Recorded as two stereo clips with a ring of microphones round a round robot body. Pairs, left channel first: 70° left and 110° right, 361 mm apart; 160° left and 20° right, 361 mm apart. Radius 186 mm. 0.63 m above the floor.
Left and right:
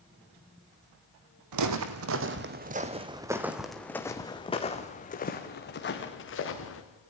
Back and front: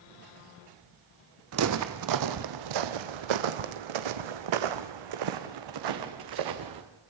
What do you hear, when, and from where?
1.5 s footsteps: 75° right, 1.6 m; by 6.8 s 10° left, 3 m